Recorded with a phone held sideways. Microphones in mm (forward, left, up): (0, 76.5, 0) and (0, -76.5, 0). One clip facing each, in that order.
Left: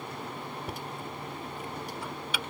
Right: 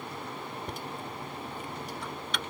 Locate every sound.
0.7 s knocking: 5° left (ahead or behind)